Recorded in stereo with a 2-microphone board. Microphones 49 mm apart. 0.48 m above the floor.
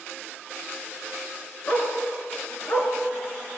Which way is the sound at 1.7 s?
50° left (ahead or behind).